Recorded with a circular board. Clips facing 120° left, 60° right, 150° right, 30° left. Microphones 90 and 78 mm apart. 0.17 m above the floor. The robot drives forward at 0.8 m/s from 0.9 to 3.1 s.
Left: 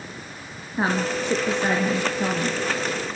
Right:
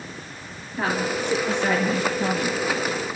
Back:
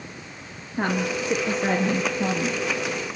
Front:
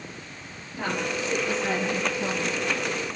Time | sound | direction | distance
0.8 | a woman speaking | 175° left | 3.5 m